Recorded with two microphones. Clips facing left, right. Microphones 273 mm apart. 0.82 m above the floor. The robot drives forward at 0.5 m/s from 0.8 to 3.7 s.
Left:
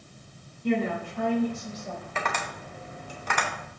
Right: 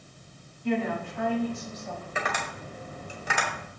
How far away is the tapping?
About 2 m.